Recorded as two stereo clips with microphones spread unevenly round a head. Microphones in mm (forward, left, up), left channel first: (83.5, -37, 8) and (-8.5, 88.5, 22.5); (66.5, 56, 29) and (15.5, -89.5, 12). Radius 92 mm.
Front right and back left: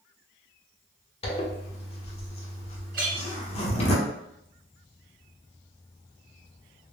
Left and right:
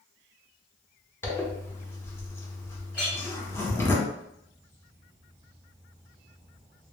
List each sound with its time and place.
1.2 s a zipper: 5° right, 0.8 m
2.9 s a clink: 145° left, 1.2 m